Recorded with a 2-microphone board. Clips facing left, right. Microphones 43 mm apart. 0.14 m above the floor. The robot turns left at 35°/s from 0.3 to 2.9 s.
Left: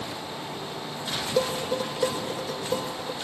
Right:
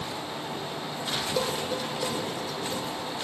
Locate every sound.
1.4 s dishes clattering: 5° left (ahead or behind), 3.5 m; by 3.1 s 60° left (ahead or behind), 3.5 m